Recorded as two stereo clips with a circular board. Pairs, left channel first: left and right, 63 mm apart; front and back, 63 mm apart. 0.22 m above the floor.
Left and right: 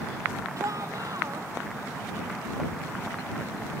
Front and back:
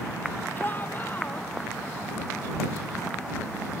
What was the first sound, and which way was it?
A shout, 60° right.